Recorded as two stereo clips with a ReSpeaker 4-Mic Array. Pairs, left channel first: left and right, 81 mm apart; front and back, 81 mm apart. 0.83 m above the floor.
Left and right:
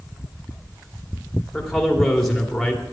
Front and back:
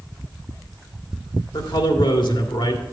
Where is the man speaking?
Straight ahead, 1.9 m.